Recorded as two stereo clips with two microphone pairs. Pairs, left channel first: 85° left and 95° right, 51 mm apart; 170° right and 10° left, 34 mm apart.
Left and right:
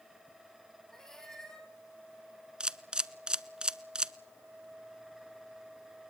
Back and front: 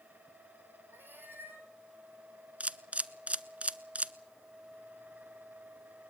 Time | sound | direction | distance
0.9 | a cat meowing | 5° left | 2.5 m
2.6 | a camera shutter | 30° right | 0.5 m